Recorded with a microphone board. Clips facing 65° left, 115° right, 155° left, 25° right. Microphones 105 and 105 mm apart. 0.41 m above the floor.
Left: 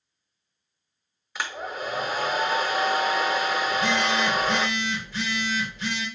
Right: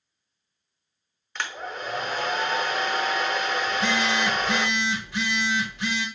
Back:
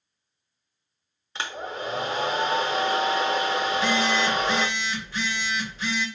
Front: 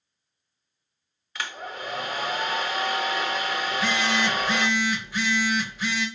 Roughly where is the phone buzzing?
Right.